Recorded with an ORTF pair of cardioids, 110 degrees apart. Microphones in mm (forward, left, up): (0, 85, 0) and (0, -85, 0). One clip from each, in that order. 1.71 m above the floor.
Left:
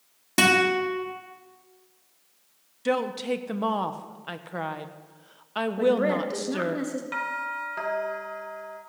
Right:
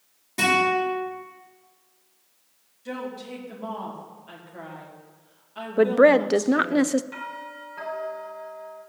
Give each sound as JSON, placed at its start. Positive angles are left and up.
{"t": 0.4, "sound": "a guitar", "azimuth_deg": 70, "distance_m": 3.5}
{"t": 2.9, "sound": "a woman speaking", "azimuth_deg": 70, "distance_m": 1.4}
{"t": 5.8, "sound": "a woman speaking", "azimuth_deg": -60, "distance_m": 0.7}
{"t": 7.1, "sound": "a doorbell", "azimuth_deg": 50, "distance_m": 2.5}